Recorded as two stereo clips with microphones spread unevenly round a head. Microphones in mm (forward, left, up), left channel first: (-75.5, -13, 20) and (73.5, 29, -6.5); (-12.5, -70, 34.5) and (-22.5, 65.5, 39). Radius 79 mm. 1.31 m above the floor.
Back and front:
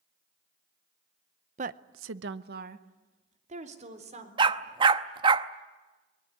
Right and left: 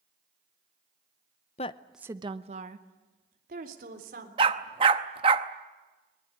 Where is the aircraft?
I don't hear an aircraft.